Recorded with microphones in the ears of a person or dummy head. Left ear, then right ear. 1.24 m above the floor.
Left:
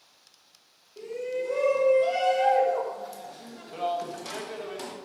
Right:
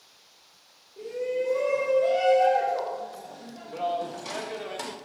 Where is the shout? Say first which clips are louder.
Right 2 dB; 70° left (ahead or behind), 2.5 m; by 5.0 s 10° right (ahead or behind), 1.6 m.